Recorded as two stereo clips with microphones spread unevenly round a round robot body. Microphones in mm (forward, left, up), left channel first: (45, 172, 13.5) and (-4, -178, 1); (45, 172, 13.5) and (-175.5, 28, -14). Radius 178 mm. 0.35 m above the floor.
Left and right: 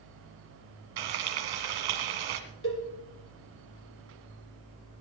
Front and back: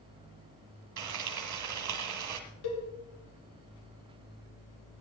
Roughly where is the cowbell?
Ahead left.